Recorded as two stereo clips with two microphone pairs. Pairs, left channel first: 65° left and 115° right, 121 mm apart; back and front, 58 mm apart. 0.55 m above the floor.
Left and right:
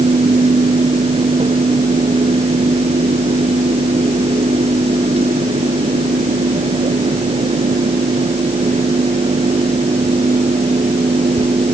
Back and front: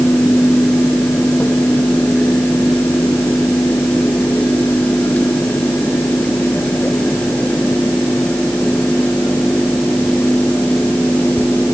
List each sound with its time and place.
Only background noise.